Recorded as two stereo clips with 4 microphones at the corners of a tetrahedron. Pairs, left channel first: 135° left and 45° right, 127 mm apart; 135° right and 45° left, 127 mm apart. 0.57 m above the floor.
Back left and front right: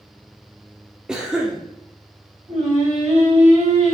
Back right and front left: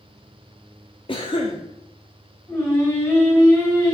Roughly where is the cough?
Behind right.